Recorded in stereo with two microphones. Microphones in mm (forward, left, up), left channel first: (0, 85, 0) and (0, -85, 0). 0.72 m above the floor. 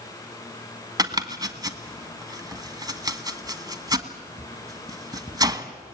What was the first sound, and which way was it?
Chopping, 20° right (ahead or behind).